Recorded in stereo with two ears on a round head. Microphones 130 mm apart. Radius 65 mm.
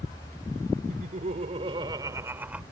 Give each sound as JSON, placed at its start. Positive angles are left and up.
{"t": 0.9, "sound": "laughter", "side_deg": -60}